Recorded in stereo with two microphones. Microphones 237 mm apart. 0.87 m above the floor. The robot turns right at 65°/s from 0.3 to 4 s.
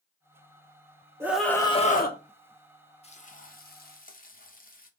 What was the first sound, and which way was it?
A scream, 10° right.